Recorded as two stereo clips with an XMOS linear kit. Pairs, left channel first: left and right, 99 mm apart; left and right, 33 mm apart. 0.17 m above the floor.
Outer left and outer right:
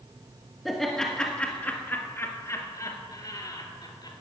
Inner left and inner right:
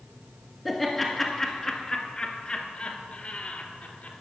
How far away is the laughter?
About 1.8 m.